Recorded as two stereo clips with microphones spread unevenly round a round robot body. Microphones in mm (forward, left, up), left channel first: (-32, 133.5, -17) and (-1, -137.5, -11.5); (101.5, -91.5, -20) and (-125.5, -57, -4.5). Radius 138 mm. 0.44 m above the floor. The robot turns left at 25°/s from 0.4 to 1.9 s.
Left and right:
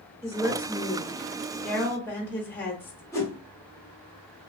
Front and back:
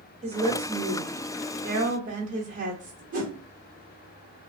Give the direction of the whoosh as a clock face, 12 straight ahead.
7 o'clock.